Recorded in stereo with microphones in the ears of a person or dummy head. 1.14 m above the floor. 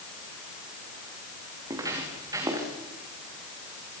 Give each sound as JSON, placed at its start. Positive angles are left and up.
{"t": 1.7, "sound": "footsteps", "side_deg": -25, "distance_m": 7.0}